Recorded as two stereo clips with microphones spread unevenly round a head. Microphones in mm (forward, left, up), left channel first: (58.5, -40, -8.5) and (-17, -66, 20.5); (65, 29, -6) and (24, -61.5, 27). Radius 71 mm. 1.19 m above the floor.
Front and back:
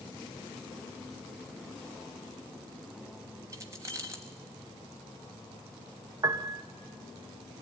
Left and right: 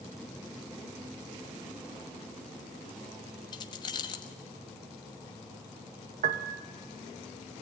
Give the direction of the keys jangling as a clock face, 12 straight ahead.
8 o'clock.